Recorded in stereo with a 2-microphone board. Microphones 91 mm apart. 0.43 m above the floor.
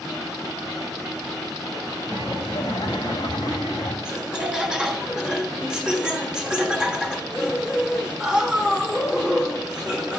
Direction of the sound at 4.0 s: 5° right (ahead or behind).